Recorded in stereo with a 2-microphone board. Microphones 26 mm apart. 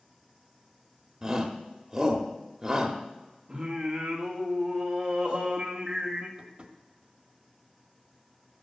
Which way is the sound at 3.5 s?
35° right (ahead or behind).